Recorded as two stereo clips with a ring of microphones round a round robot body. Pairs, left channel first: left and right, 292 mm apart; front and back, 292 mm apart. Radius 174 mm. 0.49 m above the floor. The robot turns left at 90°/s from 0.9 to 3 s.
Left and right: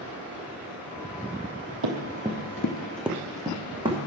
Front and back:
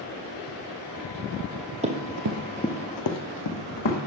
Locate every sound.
1.8 s running footsteps: 110° right, 1.2 m; by 4.0 s 15° right, 2 m